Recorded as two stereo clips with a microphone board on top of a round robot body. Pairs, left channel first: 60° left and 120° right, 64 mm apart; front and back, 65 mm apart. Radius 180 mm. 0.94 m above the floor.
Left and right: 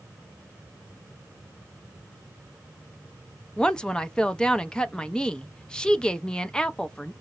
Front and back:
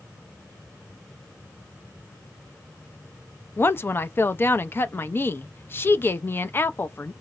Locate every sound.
3.6 s a woman speaking: 10° right, 0.5 m